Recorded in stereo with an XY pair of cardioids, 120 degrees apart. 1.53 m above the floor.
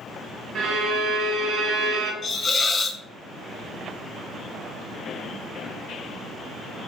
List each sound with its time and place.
0.6 s a violin: 60° right, 0.8 m
2.2 s a hiss: 30° left, 0.6 m